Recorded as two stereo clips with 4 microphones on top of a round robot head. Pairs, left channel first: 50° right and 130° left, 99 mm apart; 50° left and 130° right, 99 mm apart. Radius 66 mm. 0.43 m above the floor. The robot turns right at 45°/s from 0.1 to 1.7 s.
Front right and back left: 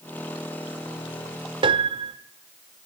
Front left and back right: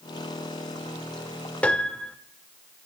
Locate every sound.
1.6 s a piano: 125° left, 0.9 m